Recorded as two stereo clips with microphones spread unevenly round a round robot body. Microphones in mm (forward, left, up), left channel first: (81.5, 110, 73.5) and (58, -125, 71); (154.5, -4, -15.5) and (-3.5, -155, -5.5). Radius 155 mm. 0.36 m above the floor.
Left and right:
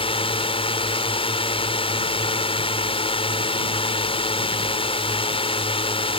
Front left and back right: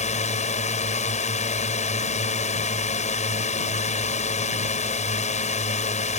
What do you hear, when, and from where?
0.0 s a drone: 40° left